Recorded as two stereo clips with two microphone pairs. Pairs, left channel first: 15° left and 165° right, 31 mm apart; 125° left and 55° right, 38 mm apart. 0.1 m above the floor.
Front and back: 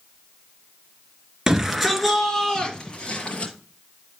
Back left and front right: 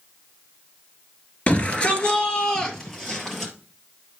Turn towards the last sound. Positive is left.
turn(degrees=40)